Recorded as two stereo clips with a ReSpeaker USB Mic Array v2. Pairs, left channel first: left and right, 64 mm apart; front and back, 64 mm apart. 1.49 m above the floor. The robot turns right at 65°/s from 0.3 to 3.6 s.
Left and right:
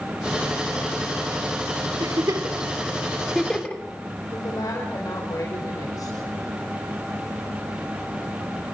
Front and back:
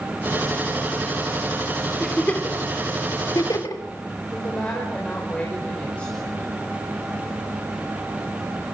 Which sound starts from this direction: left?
A woman speaking, at 4.3 s.